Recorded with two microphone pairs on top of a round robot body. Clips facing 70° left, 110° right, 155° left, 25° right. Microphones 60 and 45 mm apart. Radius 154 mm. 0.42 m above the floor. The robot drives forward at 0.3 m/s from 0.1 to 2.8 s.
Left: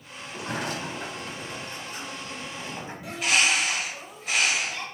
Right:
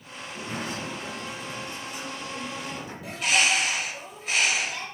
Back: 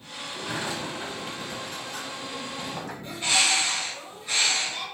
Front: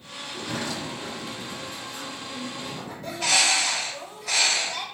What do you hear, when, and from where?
0.3 s a sliding door: 70° left, 0.6 m; by 2.9 s 135° left, 0.8 m
3.0 s a bird: 20° right, 1.1 m